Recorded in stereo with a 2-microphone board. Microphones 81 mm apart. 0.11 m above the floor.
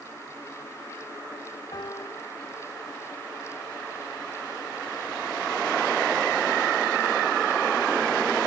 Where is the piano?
50° left (ahead or behind).